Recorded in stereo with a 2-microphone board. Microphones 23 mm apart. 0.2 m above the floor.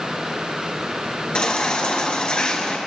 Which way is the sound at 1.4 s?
40° left (ahead or behind).